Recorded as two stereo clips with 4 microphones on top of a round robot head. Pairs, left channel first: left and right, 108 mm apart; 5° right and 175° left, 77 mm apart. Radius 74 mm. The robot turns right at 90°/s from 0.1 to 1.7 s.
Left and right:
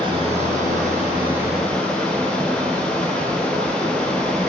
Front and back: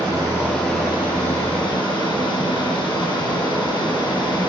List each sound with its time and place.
0.0 s running water: 135° right, 6 m; by 4.5 s 5° left, 6 m